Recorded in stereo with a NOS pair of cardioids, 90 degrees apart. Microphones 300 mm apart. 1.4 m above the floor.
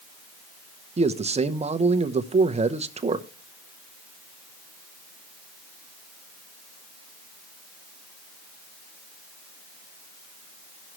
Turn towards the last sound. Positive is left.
turn(degrees=-20)